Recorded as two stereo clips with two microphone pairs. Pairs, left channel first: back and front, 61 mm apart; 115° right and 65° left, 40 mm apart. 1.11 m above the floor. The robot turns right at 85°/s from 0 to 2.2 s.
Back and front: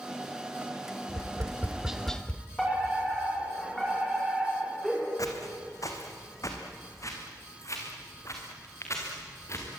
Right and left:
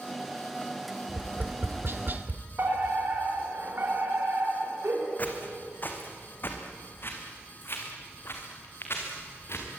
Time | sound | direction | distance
1.1 | tapping | 15° left | 1.2 m
2.6 | a fire alarm | 95° left | 6 m
5.2 | footsteps | 160° right | 2.5 m